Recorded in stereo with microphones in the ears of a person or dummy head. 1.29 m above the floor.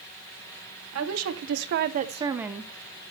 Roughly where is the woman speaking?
Right.